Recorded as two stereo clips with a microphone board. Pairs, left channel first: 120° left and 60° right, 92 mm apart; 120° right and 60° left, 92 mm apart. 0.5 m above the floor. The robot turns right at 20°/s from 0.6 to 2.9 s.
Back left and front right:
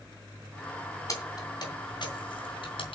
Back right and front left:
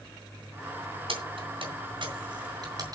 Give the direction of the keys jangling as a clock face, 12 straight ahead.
10 o'clock.